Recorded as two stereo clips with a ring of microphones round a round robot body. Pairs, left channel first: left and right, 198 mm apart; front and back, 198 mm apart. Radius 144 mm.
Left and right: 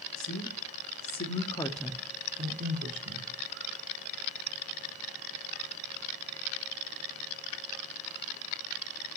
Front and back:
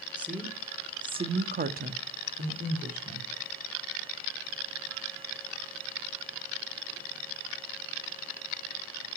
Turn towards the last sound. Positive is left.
turn(degrees=-120)